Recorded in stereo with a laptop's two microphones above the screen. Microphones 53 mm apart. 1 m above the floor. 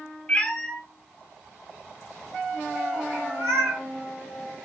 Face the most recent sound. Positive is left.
turn(degrees=-65)  # may be behind; listen again after turning